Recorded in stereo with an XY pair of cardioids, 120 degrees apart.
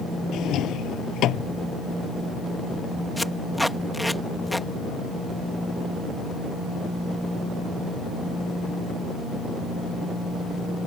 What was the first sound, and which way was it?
A drawer, 65° left.